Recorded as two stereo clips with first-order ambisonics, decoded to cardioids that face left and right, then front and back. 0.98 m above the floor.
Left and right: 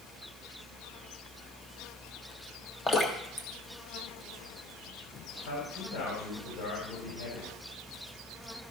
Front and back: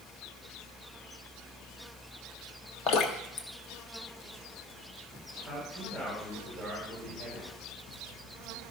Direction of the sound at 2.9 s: 20° left.